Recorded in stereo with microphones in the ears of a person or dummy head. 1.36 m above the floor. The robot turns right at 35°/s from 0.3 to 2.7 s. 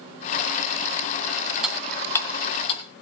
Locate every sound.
1.6 s ticking: 5° right (ahead or behind), 3 m; by 2.8 s 30° left (ahead or behind), 3 m